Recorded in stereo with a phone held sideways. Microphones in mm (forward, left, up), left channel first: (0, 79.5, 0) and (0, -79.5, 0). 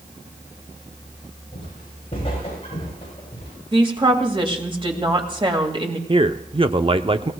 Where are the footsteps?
40° left (ahead or behind), 7.5 m; by 3.5 s 35° left (ahead or behind), 9 m.